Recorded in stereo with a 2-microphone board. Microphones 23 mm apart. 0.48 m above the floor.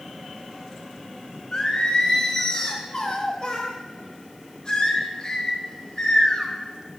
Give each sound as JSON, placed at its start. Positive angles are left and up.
{"t": 1.5, "sound": "singing", "side_deg": 30, "distance_m": 0.6}